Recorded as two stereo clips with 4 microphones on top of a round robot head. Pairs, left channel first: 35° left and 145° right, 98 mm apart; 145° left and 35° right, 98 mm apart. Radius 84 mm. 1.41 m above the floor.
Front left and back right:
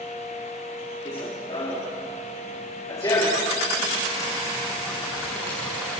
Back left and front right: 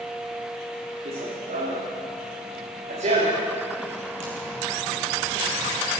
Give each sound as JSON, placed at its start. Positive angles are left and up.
{"t": 1.1, "sound": "running footsteps", "azimuth_deg": -15, "distance_m": 7.0}